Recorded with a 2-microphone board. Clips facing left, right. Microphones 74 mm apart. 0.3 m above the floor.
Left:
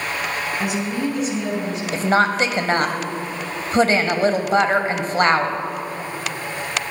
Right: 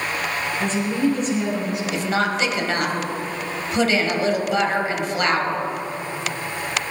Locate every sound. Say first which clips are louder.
0.6 s a woman speaking: right 4 dB; 15° left (ahead or behind), 3.5 m; by 1.8 s 5° right (ahead or behind), 4.5 m
1.9 s a woman speaking: left 6 dB; 35° left (ahead or behind), 1.3 m